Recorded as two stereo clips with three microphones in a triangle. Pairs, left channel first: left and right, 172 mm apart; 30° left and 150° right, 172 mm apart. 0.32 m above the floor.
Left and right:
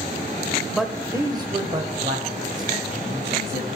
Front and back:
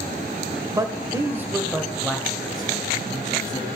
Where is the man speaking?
Straight behind, 1.0 m; by 3.6 s 50° right, 2.5 m.